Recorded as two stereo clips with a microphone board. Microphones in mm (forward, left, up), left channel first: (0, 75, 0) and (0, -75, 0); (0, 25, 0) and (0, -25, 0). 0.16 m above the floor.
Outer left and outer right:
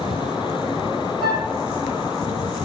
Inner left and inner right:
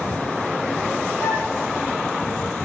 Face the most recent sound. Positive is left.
turn(degrees=80)